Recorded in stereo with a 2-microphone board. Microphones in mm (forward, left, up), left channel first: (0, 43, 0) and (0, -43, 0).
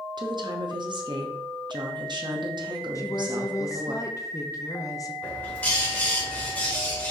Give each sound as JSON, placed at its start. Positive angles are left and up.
{"t": 0.2, "sound": "a woman speaking", "side_deg": -55, "distance_m": 0.8}
{"t": 3.0, "sound": "a woman speaking", "side_deg": 35, "distance_m": 0.7}
{"t": 5.2, "sound": "a bird", "side_deg": 20, "distance_m": 2.0}